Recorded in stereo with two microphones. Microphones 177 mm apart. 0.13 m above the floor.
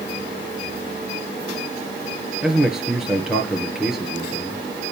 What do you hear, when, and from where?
2.4 s a man speaking: 5° right (ahead or behind), 2 m